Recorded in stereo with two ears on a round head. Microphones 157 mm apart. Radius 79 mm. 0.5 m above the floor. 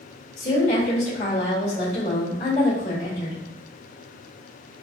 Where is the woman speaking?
45° left (ahead or behind), 1.4 m.